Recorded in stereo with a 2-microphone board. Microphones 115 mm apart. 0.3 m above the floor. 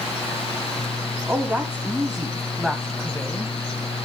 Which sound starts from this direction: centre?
A woman speaking, at 1.3 s.